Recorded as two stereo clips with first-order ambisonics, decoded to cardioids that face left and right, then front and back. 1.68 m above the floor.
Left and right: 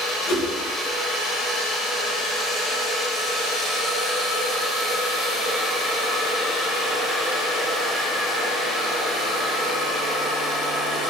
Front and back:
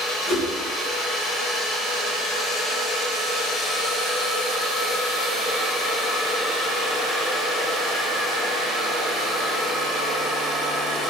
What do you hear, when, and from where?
0.3 s a whoosh: 75° left, 1.5 m